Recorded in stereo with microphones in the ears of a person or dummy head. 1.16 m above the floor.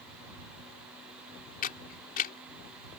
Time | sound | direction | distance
1.6 | a camera shutter | 45° left (ahead or behind) | ?